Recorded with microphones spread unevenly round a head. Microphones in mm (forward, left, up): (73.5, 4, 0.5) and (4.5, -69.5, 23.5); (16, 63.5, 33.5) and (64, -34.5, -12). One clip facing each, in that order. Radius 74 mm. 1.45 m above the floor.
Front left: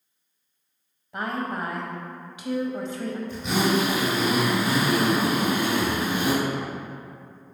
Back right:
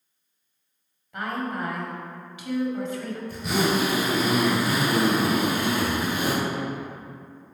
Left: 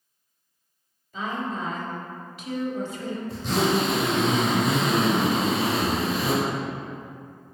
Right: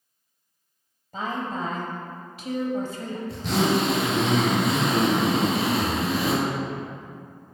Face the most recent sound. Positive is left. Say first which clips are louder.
# even, right 1 dB
turn(degrees=-65)